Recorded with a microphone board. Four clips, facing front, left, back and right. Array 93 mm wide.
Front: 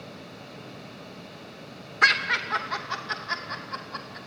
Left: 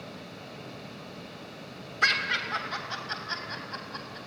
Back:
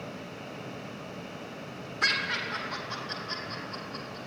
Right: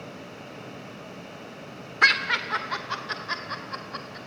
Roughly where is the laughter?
Ahead right.